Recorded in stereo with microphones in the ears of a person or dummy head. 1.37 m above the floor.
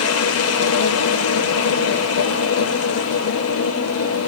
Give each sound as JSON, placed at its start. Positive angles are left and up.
{"t": 0.0, "sound": "a machine running", "side_deg": 75, "distance_m": 0.9}